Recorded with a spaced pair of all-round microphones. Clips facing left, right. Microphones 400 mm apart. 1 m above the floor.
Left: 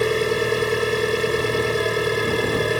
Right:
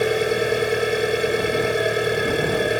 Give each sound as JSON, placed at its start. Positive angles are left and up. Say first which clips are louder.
{"t": 0.0, "sound": "an engine running", "louder": "even", "side_deg": 10}